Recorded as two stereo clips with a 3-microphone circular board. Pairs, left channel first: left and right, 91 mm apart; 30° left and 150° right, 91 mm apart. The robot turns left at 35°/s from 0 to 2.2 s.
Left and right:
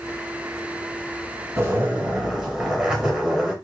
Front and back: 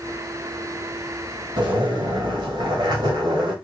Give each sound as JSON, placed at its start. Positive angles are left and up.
{"t": 1.6, "sound": "a zipper", "azimuth_deg": -150, "distance_m": 1.2}